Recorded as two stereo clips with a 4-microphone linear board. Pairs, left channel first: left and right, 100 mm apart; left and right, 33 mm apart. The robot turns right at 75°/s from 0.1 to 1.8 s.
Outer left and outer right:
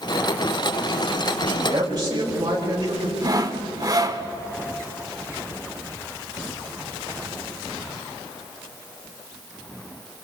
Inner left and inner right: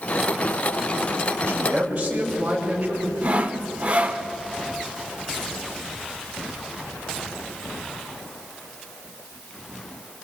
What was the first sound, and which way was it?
A man speaking, 75° right.